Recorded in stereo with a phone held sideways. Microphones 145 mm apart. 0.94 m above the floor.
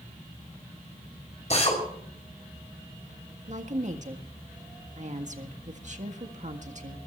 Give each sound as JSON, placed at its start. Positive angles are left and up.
{"t": 1.5, "sound": "a drill", "side_deg": 50, "distance_m": 5.5}
{"t": 3.5, "sound": "a woman speaking", "side_deg": -55, "distance_m": 1.7}